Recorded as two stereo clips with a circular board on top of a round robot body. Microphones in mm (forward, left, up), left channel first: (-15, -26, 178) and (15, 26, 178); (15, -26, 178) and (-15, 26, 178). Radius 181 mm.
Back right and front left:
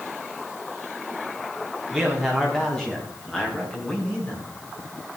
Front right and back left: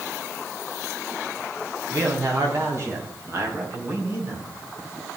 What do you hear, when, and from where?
1.9 s a man speaking: 150° left, 5.5 m; by 4.5 s 170° left, 6.5 m